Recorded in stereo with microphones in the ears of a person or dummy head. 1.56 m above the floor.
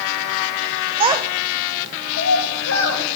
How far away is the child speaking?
About 0.8 m.